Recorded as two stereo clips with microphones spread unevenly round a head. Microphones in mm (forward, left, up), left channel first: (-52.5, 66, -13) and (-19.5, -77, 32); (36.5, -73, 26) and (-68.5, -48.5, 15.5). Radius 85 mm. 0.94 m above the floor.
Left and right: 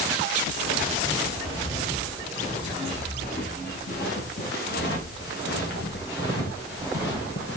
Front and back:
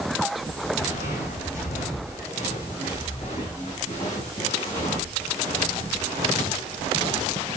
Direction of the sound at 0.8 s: 30° left.